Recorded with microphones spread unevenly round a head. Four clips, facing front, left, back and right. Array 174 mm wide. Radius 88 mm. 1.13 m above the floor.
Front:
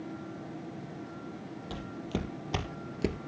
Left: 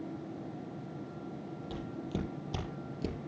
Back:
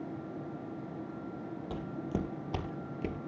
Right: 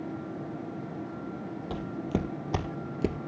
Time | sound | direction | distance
1.7 | footsteps | 95° right | 2 m